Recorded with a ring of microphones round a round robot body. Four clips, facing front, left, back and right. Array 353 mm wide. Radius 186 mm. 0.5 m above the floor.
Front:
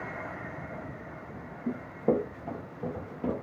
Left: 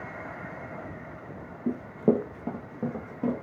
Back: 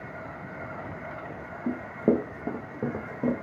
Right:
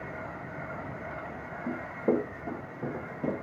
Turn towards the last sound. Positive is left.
turn(degrees=160)